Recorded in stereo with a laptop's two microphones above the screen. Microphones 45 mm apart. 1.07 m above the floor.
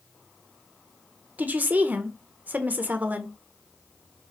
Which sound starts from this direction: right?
A woman speaking, at 1.4 s.